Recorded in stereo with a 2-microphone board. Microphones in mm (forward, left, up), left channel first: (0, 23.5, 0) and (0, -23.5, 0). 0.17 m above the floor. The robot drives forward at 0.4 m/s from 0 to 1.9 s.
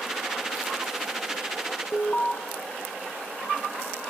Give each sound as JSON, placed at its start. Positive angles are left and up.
{"t": 1.9, "sound": "an alarm", "side_deg": 35, "distance_m": 1.1}